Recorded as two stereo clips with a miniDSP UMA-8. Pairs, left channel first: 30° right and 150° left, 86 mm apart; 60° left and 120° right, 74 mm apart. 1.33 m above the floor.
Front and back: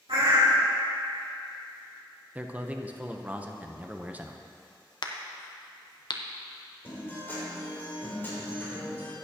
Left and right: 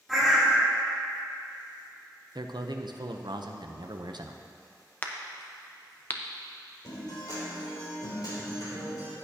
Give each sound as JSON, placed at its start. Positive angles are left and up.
{"t": 0.1, "sound": "a bird", "azimuth_deg": 150, "distance_m": 2.5}
{"t": 2.4, "sound": "a man speaking", "azimuth_deg": -140, "distance_m": 0.8}
{"t": 5.0, "sound": "a crack", "azimuth_deg": 0, "distance_m": 0.9}
{"t": 6.8, "sound": "a guitar", "azimuth_deg": 35, "distance_m": 3.5}